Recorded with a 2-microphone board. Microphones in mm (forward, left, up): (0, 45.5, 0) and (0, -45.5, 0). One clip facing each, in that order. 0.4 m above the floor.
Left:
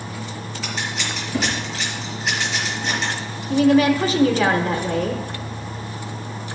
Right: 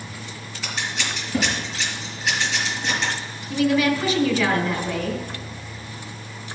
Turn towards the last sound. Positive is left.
turn(degrees=45)  # may be behind; listen again after turning